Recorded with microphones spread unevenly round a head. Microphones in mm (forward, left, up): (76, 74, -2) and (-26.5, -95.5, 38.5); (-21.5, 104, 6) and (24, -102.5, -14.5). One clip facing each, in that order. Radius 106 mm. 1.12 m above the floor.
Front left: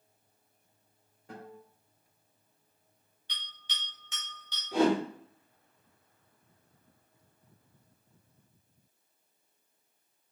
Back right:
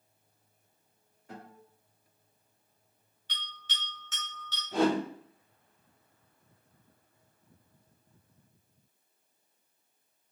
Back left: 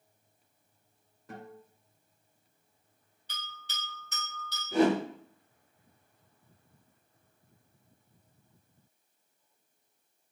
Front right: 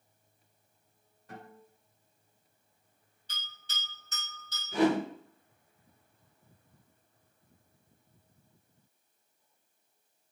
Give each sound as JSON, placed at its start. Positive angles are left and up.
{"t": 1.3, "sound": "a guitar", "azimuth_deg": 120, "distance_m": 2.5}
{"t": 3.3, "sound": "a bell", "azimuth_deg": 140, "distance_m": 2.5}
{"t": 4.7, "sound": "a whoosh", "azimuth_deg": 145, "distance_m": 2.5}